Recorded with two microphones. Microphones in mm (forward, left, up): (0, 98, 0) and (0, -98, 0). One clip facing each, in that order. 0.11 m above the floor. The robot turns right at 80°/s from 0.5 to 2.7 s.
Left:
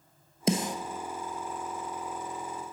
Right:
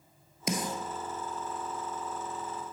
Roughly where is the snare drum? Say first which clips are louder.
Left 5 dB; left.